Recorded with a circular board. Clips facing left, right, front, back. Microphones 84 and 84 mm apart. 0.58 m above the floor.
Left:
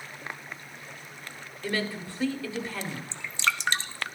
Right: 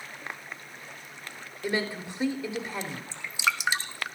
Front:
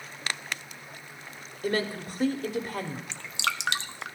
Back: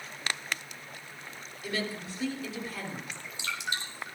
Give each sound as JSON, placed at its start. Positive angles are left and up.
{"t": 1.6, "sound": "a woman speaking", "azimuth_deg": -25, "distance_m": 1.4}
{"t": 3.1, "sound": "dripping", "azimuth_deg": -10, "distance_m": 0.7}